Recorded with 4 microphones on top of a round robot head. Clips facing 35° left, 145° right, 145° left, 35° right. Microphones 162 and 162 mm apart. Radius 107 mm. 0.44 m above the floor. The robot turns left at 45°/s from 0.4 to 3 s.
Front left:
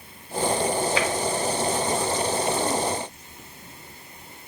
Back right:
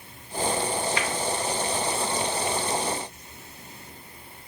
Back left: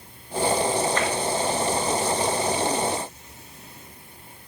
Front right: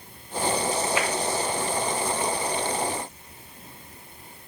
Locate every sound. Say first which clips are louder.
1.0 s tapping: front left 5 dB, back left 2 dB; 45° left, 0.7 m; by 1.1 s 40° left, 0.7 m